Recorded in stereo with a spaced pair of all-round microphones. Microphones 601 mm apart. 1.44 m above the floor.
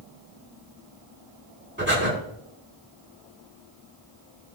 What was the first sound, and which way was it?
Breathing, 20° right (ahead or behind).